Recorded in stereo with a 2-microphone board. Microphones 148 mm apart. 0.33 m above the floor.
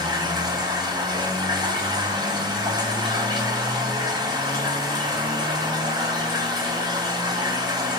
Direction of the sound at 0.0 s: 30° right (ahead or behind).